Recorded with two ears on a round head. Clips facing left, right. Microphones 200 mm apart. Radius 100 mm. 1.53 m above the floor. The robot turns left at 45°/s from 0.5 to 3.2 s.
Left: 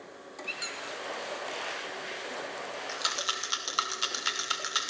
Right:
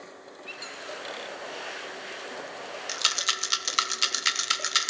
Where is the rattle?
45° right (ahead or behind), 0.7 m; by 4.9 s 30° right (ahead or behind), 0.7 m.